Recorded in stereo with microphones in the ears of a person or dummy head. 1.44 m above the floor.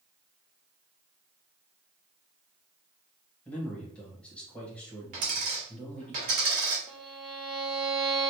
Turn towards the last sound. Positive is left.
turn(degrees=0)  # may be behind; listen again after turning